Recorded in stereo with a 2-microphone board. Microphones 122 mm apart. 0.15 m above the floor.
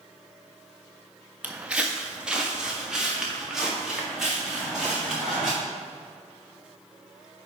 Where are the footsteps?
15° right (ahead or behind), 0.7 m; by 5.5 s 5° right (ahead or behind), 4.5 m.